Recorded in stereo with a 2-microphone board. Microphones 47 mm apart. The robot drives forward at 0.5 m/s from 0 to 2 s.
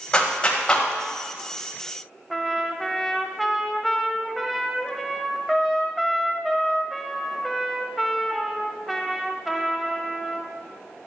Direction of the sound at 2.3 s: Centre (ahead or behind).